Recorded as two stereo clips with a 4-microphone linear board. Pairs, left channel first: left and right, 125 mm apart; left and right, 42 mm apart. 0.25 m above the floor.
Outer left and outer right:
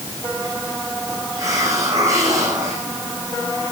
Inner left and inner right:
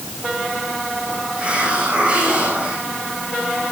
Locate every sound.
1.4 s a hiss: 25° right (ahead or behind), 8 m